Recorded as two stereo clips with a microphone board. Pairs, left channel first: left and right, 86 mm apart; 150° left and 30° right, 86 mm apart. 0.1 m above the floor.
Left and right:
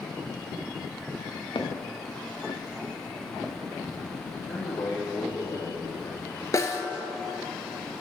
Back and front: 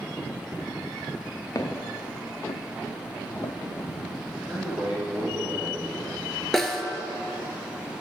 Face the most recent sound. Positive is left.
turn(degrees=65)